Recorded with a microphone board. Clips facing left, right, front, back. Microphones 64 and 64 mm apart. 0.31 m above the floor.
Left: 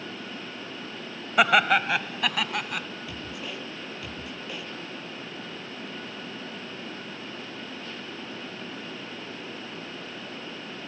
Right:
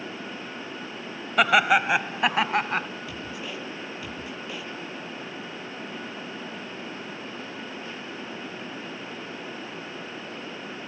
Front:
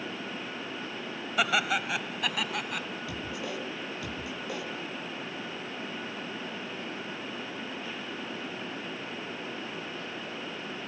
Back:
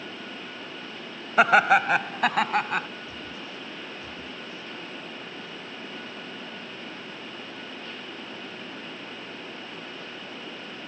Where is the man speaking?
Straight ahead.